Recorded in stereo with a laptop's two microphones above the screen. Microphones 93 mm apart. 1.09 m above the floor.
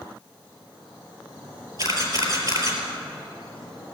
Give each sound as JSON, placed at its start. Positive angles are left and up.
{"t": 1.8, "sound": "a camera shutter", "side_deg": -45, "distance_m": 4.0}